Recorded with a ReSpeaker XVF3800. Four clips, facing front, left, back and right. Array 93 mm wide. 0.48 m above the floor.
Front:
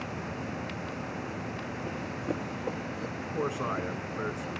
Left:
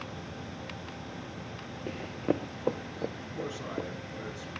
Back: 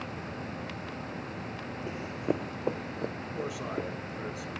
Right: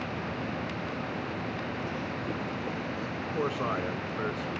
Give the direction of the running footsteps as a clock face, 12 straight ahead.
9 o'clock.